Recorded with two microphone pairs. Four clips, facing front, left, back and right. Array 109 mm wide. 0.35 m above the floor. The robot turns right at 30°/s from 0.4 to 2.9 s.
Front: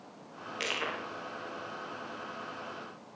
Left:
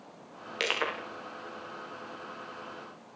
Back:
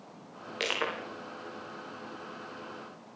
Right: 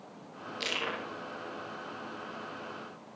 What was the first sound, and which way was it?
Crushing, 125° left.